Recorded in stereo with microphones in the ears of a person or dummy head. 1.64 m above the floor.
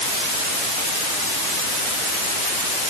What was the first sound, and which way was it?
Only background noise.